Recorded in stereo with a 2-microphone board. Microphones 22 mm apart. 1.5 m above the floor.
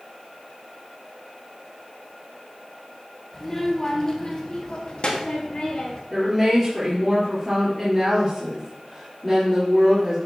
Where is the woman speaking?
Centre (ahead or behind), 3.5 m.